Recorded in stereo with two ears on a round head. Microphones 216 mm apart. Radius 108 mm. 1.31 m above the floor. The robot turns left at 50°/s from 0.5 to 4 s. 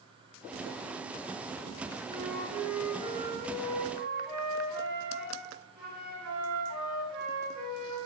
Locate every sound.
2.0 s a flute: 15° left, 1.9 m; by 8.0 s 85° right, 1.9 m